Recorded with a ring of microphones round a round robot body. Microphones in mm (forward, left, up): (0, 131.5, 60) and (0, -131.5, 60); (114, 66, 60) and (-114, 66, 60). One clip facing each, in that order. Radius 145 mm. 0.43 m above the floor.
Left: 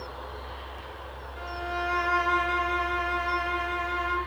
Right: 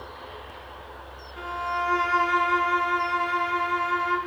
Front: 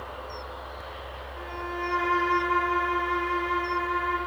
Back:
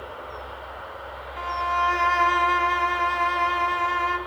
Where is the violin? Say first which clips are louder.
Even, back 1 dB; 170° right, 0.7 m.